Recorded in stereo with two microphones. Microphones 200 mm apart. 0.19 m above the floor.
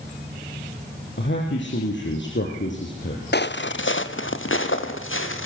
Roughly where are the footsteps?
Left.